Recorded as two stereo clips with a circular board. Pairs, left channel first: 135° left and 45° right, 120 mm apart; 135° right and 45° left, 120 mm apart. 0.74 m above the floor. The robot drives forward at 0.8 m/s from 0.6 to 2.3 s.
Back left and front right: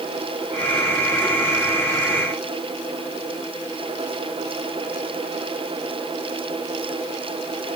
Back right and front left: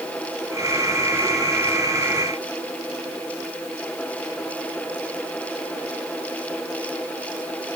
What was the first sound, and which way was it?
Only background noise.